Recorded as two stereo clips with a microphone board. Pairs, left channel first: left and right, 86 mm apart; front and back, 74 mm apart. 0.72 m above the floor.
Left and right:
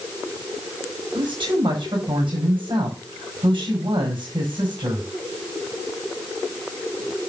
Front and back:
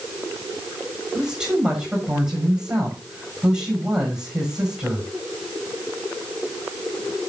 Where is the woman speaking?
100° right, 7 m.